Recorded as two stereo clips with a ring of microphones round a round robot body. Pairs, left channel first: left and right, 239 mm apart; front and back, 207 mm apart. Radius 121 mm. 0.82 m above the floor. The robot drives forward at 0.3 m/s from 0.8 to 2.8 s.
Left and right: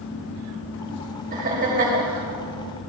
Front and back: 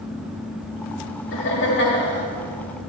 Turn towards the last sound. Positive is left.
turn(degrees=-45)